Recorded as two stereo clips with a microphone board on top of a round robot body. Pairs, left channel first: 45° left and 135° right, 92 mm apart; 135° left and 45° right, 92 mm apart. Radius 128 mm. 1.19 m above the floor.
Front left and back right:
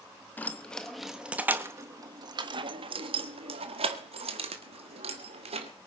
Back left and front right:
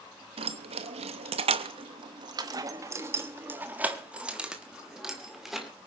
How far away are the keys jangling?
About 1.1 m.